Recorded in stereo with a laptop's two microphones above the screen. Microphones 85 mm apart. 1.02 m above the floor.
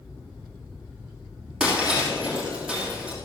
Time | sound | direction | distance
1.6 | breaking glass | 10° right (ahead or behind) | 3 m